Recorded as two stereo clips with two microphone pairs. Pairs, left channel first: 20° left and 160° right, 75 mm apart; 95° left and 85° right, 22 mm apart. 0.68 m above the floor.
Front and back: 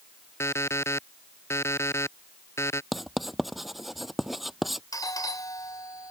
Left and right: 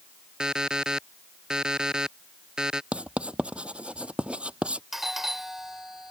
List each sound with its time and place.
0.4 s an alarm clock: 35° right
2.9 s writing: 75° right
4.9 s a doorbell: 15° right